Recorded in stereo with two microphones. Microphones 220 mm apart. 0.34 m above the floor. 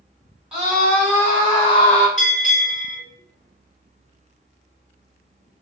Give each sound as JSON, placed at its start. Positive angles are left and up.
{"t": 0.5, "sound": "a scream", "side_deg": -5, "distance_m": 1.6}
{"t": 2.2, "sound": "a bell", "side_deg": 35, "distance_m": 1.6}